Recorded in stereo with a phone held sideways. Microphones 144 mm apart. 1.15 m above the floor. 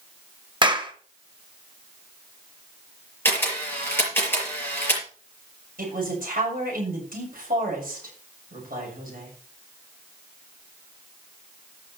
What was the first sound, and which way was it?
A clap, 30° right (ahead or behind).